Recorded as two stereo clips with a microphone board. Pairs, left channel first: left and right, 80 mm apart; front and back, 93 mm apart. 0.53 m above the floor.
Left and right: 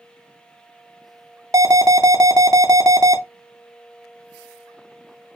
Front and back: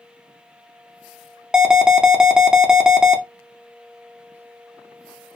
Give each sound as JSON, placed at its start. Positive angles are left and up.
{"t": 1.5, "sound": "an alarm", "azimuth_deg": -100, "distance_m": 0.5}